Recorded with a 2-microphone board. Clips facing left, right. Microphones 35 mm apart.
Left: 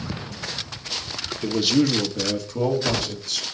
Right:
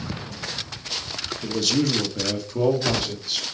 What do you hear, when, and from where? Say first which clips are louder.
1.4 s a man speaking: left 3 dB; 25° left (ahead or behind), 1.1 m; by 3.5 s 20° right (ahead or behind), 3 m